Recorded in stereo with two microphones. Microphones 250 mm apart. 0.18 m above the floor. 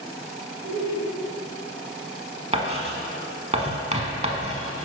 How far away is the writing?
About 0.7 m.